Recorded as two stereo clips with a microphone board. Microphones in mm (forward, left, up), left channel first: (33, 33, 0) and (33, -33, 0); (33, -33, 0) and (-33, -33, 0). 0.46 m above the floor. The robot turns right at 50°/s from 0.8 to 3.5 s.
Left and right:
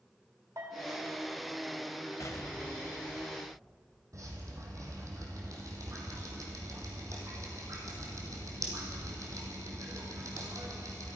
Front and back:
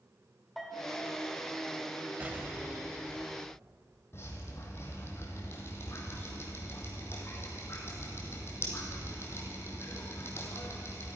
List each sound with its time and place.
0.6 s a bell: 90° right, 1.9 m; by 1.0 s 85° right, 1.9 m
2.2 s an explosion: 115° left, 1.1 m; by 3.8 s straight behind, 1.1 m
4.1 s dripping: 50° right, 2.5 m